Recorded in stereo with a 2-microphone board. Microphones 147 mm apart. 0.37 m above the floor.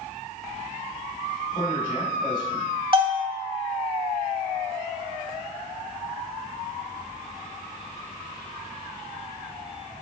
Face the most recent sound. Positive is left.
turn(degrees=-35)  # may be behind; listen again after turning